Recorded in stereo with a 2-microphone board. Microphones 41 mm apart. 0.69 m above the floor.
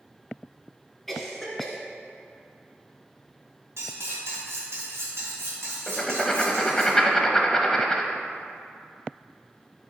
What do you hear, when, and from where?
1.1 s a cough: centre (ahead or behind), 2.5 m
3.8 s cutlery clinking: 75° right (ahead or behind), 2.5 m
5.9 s writing: 10° left (ahead or behind), 0.8 m